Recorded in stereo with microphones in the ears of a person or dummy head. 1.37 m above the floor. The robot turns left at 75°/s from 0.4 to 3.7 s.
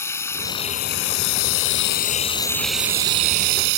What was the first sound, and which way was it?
Running water, 175° left.